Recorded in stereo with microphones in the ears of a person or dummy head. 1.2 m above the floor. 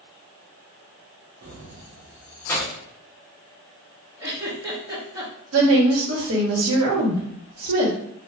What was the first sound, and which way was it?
Keys jangling, 40° right (ahead or behind).